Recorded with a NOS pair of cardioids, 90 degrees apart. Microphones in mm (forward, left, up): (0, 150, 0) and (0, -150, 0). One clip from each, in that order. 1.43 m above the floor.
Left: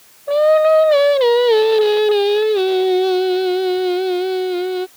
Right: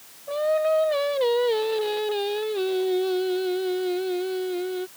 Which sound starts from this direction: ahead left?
Singing, at 0.3 s.